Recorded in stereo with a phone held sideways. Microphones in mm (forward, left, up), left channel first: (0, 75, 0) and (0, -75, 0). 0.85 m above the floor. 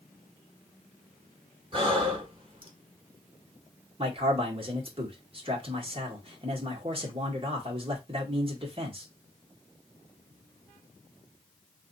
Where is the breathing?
35° right (ahead or behind), 1.2 m.